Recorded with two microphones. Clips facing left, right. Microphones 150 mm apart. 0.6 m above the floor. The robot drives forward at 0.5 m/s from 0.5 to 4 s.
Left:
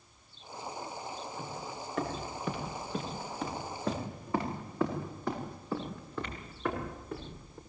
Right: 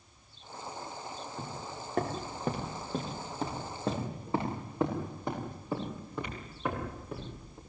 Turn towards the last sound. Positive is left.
turn(degrees=-10)  # may be behind; listen again after turning